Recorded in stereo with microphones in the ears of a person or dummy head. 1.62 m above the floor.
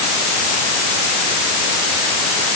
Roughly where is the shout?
I don't hear a shout.